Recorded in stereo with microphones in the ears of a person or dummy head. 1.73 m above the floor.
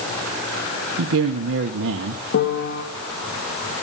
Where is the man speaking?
65° right (ahead or behind), 0.9 m.